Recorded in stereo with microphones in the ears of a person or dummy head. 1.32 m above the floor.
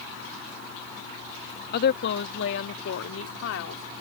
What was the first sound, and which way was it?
A woman speaking, 55° left (ahead or behind).